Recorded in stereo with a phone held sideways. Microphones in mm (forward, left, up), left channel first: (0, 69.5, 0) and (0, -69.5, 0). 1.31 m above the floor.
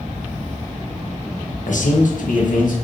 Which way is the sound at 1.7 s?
65° left (ahead or behind).